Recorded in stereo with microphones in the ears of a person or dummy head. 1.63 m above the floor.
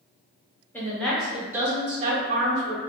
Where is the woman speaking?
10° left (ahead or behind), 1.4 m; by 2.8 s 65° right (ahead or behind), 0.9 m.